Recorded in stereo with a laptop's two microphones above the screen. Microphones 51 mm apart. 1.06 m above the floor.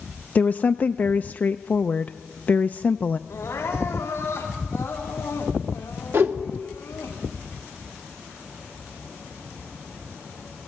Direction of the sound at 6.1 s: 55° right (ahead or behind).